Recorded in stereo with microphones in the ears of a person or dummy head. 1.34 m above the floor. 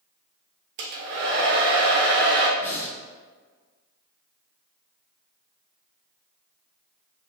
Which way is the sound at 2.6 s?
15° left (ahead or behind).